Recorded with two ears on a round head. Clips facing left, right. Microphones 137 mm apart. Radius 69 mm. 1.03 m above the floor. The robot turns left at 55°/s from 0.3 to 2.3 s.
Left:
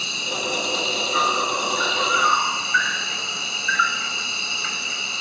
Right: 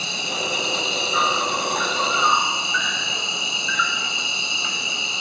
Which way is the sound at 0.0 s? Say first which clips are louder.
Right 1 dB; 50° right.